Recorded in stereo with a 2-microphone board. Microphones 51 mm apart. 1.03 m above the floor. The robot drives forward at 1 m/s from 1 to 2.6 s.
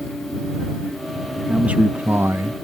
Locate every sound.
1.5 s a man speaking: 25° right (ahead or behind); by 2.5 s 55° right (ahead or behind)